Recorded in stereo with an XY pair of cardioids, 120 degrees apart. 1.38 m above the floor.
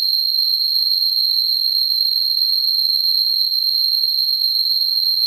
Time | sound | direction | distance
0.0 | an insect | 45° right | 0.8 m